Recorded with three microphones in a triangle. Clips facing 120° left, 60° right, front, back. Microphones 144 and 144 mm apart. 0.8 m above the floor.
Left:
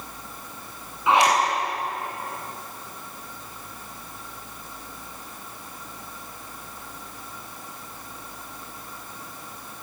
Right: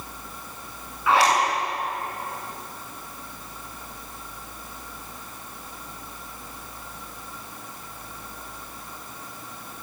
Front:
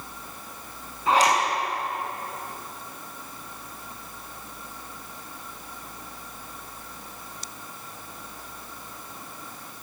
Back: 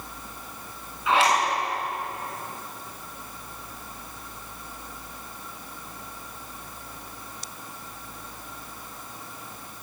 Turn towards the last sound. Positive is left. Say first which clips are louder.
# left 1 dB, front 1 dB
turn(degrees=50)